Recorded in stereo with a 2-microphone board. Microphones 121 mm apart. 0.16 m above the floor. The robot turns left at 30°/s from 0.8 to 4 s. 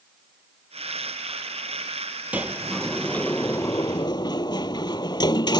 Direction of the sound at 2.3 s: 10° right (ahead or behind).